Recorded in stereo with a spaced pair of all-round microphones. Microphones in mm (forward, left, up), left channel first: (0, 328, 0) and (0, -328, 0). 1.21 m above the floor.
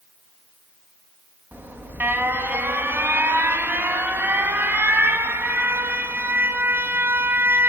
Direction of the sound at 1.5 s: 5° right (ahead or behind).